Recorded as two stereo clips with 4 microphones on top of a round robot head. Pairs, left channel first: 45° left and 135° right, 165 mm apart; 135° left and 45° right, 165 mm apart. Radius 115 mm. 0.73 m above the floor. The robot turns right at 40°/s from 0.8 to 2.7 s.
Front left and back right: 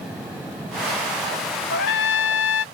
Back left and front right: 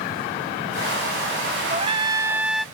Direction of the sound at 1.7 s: 10° left.